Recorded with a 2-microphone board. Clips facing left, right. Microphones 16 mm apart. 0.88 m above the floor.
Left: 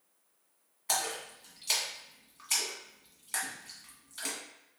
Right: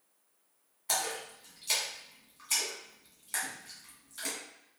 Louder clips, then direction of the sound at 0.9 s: Even; 10° left (ahead or behind).